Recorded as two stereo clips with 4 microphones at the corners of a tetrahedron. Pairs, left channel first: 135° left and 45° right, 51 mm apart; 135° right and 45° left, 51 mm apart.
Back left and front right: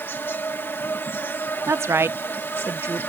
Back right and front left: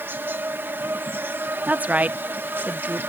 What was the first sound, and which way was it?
An insect, 90° left.